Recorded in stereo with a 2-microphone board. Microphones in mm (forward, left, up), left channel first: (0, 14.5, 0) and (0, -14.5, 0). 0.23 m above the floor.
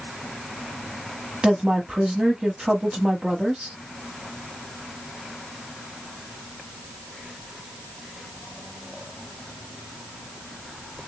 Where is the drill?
No drill in this recording.